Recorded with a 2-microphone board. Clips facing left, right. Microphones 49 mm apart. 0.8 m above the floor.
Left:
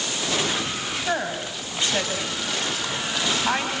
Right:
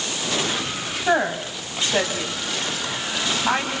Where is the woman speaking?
20° right (ahead or behind), 4.5 m; by 3.7 s 5° right (ahead or behind), 5 m.